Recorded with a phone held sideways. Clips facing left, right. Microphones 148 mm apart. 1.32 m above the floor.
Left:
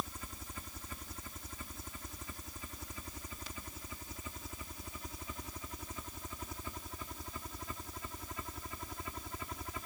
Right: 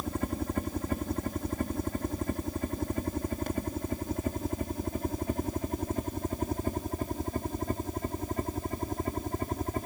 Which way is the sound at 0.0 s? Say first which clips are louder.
Right 13 dB; 60° right (ahead or behind).